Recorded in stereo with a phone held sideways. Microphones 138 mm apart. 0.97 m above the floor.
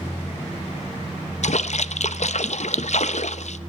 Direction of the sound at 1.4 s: 65° left (ahead or behind).